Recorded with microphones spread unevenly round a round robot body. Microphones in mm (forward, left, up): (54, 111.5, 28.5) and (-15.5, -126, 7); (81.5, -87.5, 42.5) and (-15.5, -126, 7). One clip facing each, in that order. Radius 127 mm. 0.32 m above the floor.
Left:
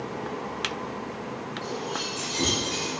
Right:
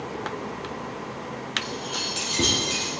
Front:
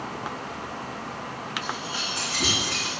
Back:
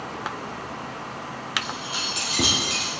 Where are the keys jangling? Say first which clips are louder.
Left 1 dB, even; 150° right, 6 m; by 2.9 s 165° right, 5.5 m.